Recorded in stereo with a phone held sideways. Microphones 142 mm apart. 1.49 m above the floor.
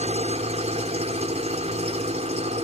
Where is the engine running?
50° right (ahead or behind).